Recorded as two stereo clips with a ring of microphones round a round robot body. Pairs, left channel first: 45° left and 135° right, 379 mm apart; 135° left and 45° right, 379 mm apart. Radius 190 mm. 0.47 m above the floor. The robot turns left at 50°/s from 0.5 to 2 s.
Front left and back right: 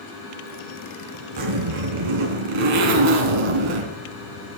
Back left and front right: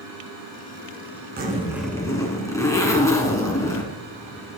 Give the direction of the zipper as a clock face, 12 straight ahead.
4 o'clock.